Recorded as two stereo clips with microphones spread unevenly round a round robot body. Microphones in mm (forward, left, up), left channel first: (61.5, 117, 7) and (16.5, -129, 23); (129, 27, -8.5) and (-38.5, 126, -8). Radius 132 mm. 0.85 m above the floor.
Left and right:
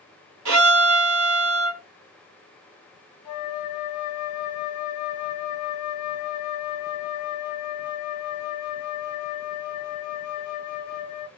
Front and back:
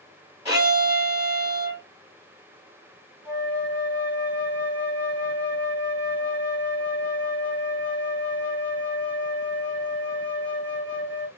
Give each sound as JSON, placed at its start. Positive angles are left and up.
{"t": 0.5, "sound": "a violin", "azimuth_deg": -135, "distance_m": 2.5}
{"t": 3.2, "sound": "a flute", "azimuth_deg": 75, "distance_m": 1.3}